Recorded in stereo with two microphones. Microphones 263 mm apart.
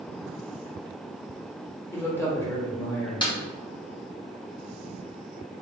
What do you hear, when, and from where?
1.9 s a man speaking: 10° left (ahead or behind), 1.4 m
3.2 s a snare drum: 15° left (ahead or behind), 0.8 m